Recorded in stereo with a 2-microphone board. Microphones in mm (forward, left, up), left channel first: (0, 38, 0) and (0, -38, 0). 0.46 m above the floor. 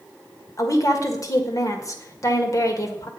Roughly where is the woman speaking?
Left.